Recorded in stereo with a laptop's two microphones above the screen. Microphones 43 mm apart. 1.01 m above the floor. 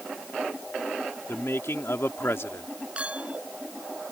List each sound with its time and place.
1.3 s a man speaking: 70° left (ahead or behind)
3.0 s a clink: 25° right (ahead or behind)